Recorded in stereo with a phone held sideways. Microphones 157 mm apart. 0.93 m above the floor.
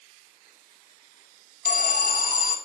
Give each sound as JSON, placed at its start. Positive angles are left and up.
{"t": 1.6, "sound": "an alarm", "side_deg": 65, "distance_m": 3.5}